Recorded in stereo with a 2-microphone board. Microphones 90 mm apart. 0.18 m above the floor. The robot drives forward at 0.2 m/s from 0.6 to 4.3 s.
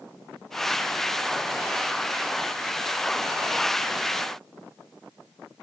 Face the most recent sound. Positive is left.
No sound to turn to.